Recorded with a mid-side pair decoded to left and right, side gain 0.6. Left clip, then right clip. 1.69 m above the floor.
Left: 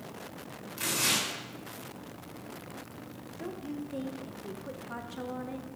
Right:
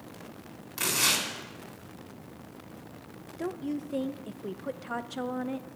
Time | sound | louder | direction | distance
0.8 | tearing paper | right 2 dB | 35° right | 3.5 m
3.4 | a woman speaking | right 5 dB | 40° right | 0.7 m